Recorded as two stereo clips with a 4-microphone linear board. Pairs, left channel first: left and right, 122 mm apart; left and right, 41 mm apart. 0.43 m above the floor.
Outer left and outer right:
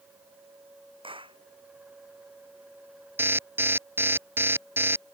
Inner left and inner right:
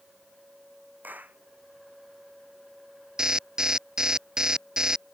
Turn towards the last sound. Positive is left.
turn(degrees=-20)  # may be behind; listen again after turning